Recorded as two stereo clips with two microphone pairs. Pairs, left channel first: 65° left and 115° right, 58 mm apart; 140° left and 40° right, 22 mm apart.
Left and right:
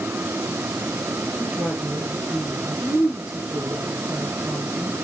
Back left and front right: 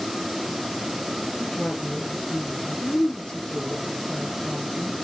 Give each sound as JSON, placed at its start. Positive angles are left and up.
{"t": 1.4, "sound": "a woman speaking", "azimuth_deg": 175, "distance_m": 3.5}